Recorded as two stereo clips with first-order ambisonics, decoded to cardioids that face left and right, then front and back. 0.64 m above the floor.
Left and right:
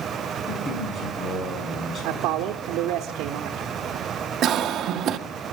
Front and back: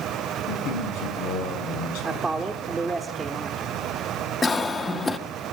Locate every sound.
0.5 s a man speaking: 20° left, 7 m
2.0 s a man speaking: 100° right, 1.1 m
4.4 s a cough: 65° right, 1.4 m